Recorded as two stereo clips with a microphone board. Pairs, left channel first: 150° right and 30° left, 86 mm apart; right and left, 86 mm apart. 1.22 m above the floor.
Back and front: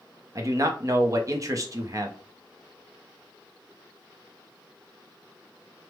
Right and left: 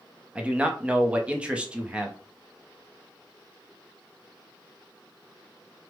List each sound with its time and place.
0.3 s a man speaking: 20° left, 0.6 m